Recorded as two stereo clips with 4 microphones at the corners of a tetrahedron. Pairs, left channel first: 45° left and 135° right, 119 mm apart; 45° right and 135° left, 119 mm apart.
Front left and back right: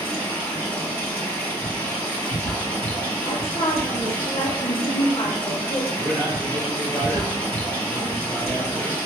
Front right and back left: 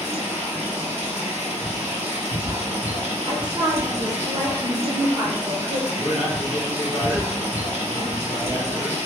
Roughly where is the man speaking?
Behind left.